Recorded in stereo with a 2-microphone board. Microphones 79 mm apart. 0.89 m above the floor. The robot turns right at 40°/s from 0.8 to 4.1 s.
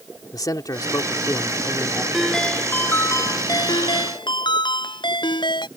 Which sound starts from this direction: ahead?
A ringtone, at 2.1 s.